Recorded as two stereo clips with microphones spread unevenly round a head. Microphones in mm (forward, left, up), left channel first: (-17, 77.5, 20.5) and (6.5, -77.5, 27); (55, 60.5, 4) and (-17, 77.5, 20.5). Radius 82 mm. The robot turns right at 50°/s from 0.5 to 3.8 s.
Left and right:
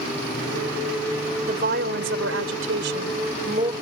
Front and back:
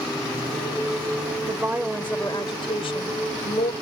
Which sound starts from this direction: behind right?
A woman speaking, at 1.5 s.